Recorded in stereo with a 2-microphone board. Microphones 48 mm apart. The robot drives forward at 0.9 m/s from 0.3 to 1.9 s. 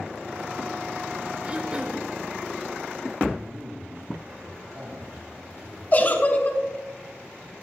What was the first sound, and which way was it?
Throat clearing, 25° right (ahead or behind).